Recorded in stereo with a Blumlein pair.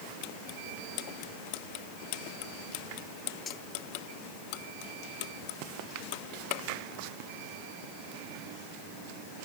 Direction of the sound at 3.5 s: 20° left.